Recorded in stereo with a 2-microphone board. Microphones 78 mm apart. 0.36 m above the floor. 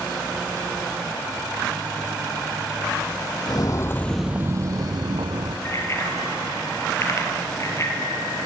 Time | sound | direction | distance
3.5 | footsteps | 55° left (ahead or behind) | 0.9 m
5.7 | a bicycle bell | 40° left (ahead or behind) | 5 m